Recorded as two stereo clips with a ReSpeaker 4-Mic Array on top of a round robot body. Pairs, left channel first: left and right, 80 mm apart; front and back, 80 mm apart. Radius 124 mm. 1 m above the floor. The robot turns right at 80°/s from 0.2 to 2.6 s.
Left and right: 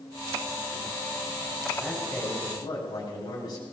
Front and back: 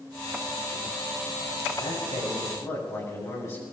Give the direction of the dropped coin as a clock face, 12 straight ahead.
I don't hear a dropped coin.